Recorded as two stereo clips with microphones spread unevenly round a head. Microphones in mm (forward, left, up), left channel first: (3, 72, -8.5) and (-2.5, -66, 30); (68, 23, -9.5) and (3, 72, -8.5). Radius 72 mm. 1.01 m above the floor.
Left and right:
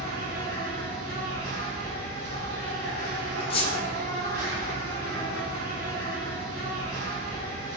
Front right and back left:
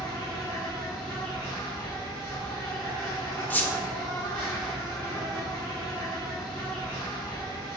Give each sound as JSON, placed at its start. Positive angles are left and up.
{"t": 0.0, "sound": "an insect", "azimuth_deg": -120, "distance_m": 1.4}
{"t": 3.5, "sound": "a squeak", "azimuth_deg": 30, "distance_m": 0.7}